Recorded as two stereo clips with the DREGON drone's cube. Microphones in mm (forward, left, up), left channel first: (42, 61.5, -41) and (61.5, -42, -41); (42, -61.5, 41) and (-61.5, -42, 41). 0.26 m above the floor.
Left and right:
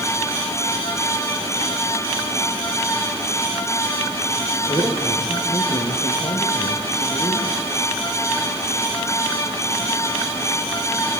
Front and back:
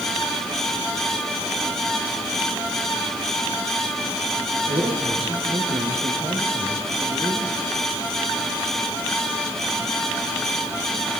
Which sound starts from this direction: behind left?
A man speaking, at 4.7 s.